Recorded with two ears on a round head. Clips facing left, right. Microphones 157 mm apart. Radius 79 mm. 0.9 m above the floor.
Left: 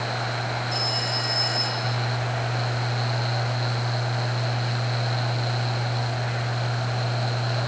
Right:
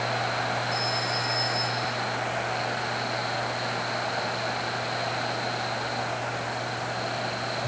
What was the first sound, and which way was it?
A phone ringing, 35° left (ahead or behind).